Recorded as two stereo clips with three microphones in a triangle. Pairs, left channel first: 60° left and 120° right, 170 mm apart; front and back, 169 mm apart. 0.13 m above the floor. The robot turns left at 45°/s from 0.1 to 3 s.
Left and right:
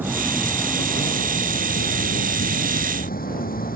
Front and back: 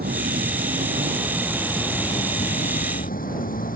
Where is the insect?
160° left; by 3.8 s 30° left.